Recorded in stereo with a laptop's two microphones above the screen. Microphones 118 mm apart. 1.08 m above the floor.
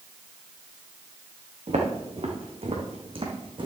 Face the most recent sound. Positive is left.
turn(degrees=-45)  # may be behind; listen again after turning